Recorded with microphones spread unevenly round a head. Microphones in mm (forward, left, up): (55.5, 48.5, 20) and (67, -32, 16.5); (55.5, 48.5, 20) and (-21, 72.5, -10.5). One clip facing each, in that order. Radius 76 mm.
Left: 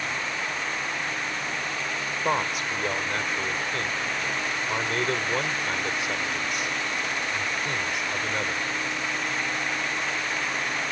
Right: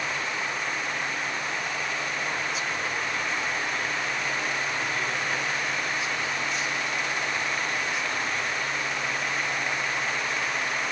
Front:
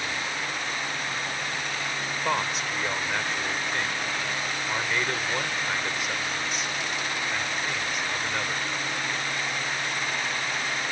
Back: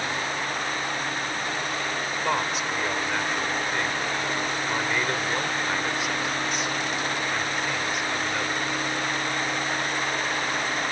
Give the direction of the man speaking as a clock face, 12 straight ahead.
10 o'clock.